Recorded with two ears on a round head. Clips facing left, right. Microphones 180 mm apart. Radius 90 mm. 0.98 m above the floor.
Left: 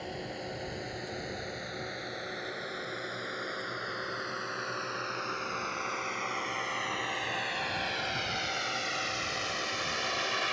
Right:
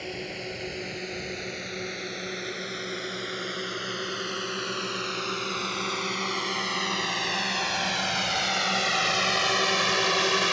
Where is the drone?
35° right (ahead or behind); by 10.5 s 60° right (ahead or behind).